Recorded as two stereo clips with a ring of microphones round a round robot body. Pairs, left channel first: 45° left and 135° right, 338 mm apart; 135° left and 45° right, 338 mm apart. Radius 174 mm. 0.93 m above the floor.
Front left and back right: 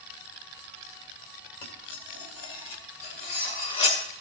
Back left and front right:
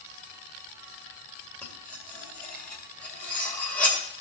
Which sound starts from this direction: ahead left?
Cutlery clinking, at 1.6 s.